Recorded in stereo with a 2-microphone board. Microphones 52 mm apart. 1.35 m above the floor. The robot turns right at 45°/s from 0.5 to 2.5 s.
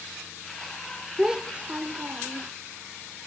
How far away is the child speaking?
About 0.6 m.